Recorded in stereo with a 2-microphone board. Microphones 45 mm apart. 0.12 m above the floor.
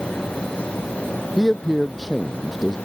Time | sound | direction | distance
1.4 | a man speaking | centre (ahead or behind) | ?